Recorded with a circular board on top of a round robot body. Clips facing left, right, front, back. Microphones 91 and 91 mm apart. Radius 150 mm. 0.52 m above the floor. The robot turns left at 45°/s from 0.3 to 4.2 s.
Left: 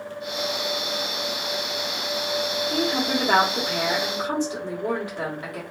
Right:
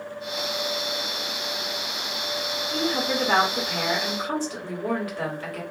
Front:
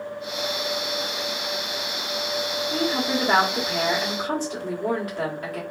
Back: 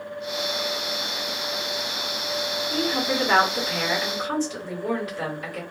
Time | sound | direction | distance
2.7 | a woman speaking | 95° left | 1.7 m